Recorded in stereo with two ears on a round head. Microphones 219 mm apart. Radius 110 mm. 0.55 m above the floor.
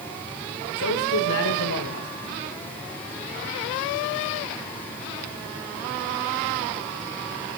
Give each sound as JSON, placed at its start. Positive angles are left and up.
{"t": 0.8, "sound": "a man speaking", "side_deg": 65, "distance_m": 1.8}